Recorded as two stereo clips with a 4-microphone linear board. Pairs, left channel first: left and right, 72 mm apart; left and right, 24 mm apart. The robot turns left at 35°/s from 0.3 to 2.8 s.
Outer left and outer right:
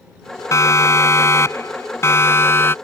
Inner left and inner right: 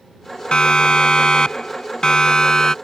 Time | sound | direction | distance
0.5 | a siren | 45° left (ahead or behind) | ?